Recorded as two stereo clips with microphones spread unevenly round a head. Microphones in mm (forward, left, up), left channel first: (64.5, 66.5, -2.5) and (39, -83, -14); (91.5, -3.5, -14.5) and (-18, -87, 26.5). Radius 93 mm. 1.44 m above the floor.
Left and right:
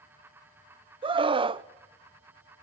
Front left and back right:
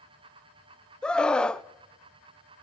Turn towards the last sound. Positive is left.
turn(degrees=-45)